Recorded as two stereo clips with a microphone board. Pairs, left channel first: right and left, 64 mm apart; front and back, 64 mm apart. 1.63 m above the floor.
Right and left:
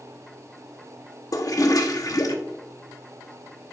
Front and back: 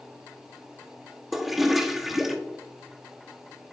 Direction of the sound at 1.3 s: 95° right.